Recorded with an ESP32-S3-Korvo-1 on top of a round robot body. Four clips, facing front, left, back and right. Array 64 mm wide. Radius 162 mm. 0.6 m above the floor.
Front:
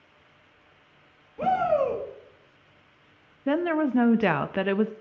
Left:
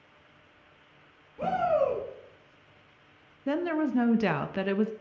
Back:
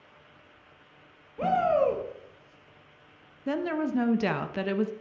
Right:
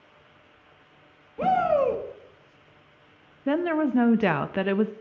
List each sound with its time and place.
1.4 s a shout: 90° right, 1.4 m
3.5 s a woman speaking: 40° right, 0.6 m